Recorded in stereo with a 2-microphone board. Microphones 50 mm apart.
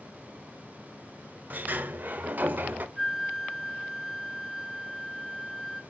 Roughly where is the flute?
Centre.